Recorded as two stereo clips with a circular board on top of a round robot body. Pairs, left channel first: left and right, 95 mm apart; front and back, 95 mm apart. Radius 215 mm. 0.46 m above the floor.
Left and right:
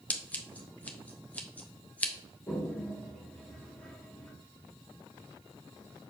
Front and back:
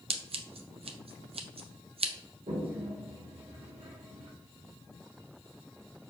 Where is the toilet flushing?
160° left, 1.0 m.